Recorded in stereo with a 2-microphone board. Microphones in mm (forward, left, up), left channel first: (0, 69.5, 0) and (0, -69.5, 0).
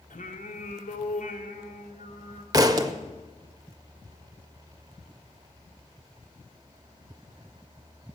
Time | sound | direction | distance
0.1 | singing | 65° left (ahead or behind) | 1.5 m
2.5 | a thud | 25° right (ahead or behind) | 0.8 m